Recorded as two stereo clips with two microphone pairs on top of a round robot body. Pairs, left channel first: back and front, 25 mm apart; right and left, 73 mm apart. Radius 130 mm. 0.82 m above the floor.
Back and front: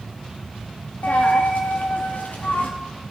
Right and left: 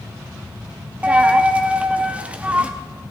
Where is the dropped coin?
165° left, 0.5 m.